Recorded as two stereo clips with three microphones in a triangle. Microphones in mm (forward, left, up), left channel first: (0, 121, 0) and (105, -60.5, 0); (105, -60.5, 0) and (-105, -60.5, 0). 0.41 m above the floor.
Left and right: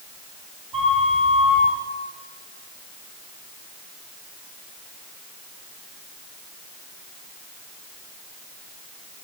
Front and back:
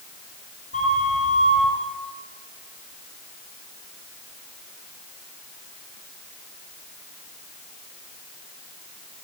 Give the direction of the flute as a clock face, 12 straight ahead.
5 o'clock.